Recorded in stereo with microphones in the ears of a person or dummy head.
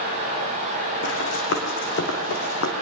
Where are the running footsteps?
75° left (ahead or behind), 5 m; by 2.7 s 70° left (ahead or behind), 4 m.